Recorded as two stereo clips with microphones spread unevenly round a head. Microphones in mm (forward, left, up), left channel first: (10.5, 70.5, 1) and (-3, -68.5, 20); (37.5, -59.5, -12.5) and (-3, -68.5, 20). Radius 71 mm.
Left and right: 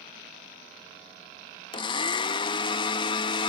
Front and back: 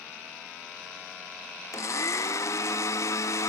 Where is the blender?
25° left.